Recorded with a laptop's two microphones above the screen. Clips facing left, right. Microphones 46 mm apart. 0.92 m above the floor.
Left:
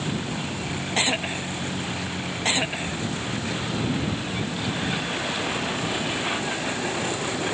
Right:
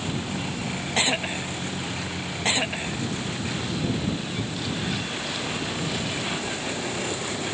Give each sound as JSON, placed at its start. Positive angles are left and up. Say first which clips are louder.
{"t": 0.0, "sound": "a vehicle", "louder": "left 1 dB", "side_deg": 10}